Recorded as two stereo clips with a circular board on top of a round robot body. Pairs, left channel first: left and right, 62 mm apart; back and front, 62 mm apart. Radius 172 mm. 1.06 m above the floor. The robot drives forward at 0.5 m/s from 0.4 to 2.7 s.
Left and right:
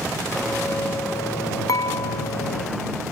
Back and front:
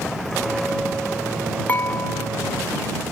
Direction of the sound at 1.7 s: 115° left.